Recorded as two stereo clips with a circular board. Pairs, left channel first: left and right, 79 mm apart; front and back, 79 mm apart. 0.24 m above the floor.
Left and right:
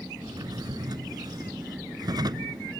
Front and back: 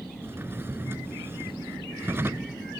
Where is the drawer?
120° right.